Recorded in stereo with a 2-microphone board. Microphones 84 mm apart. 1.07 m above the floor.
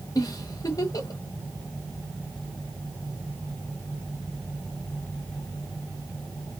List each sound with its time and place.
0.1 s a giggle: 45° left (ahead or behind), 0.8 m